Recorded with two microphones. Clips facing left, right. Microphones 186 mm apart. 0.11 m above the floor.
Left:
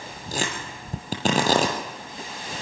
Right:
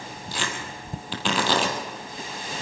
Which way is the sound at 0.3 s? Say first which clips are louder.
Left 4 dB; 45° left (ahead or behind).